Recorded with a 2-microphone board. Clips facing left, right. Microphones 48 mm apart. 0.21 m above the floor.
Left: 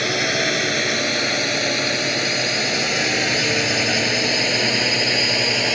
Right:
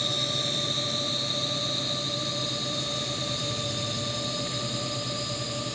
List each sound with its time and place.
0.0 s a drone: 65° left (ahead or behind); by 5.8 s 70° left (ahead or behind)